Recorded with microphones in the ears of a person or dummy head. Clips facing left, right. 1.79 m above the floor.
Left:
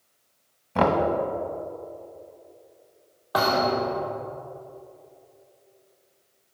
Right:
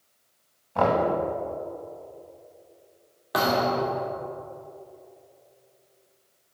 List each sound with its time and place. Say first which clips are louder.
0.8 s knocking: left 1 dB; 25° left (ahead or behind), 1.5 m
3.3 s a thud: left 1 dB; 25° right (ahead or behind), 2 m